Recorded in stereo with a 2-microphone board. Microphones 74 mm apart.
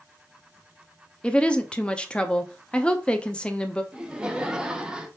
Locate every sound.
1.2 s a woman speaking: 15° left (ahead or behind), 0.5 m
3.9 s laughter: 10° right (ahead or behind), 0.8 m